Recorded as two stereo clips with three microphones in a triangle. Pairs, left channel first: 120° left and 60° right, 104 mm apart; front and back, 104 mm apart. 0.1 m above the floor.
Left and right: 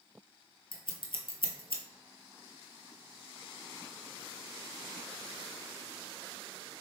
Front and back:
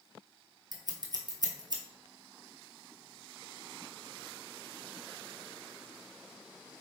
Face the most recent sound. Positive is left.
turn(degrees=140)